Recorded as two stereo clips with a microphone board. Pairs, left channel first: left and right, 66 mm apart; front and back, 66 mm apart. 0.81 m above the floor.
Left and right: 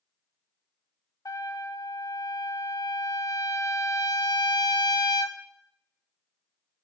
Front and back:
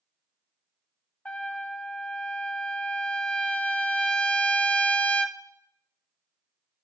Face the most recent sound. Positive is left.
turn(degrees=70)